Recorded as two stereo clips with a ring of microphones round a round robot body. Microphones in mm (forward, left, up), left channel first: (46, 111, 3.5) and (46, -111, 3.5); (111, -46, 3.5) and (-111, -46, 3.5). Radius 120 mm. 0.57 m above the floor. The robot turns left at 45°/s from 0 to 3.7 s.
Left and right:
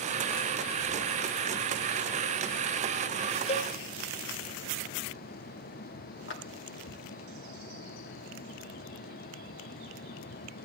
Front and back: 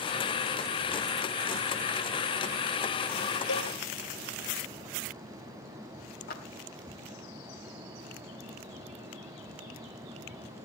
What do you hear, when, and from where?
3.5 s a cowbell: 30° left, 1.1 m; by 3.7 s 20° left, 1.1 m
6.3 s a clap: 55° left, 2.5 m